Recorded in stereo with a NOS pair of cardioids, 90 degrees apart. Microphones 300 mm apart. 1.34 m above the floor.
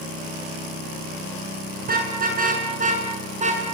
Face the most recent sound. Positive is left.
turn(degrees=-25)